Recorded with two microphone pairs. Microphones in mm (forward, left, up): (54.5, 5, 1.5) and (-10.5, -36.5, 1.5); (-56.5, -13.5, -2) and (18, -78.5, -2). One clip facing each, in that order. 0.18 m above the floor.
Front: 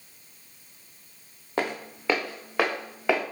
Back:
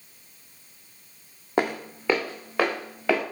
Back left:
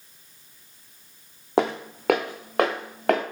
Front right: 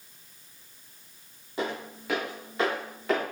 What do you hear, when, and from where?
1.6 s footsteps: 140° left, 0.6 m; by 3.2 s 115° left, 1.8 m